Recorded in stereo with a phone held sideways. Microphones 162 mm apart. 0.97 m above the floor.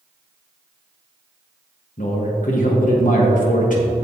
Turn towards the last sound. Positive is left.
turn(degrees=55)  # may be behind; listen again after turning